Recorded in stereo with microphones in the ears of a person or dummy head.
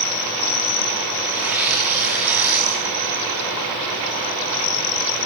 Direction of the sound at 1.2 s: 5° right (ahead or behind).